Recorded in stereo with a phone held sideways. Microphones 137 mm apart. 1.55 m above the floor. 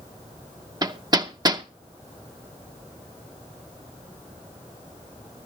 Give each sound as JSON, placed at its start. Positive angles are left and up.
{"t": 0.8, "sound": "hammering", "side_deg": -30, "distance_m": 0.8}